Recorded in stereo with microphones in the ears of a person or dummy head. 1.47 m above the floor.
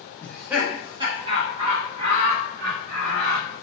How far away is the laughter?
About 0.5 m.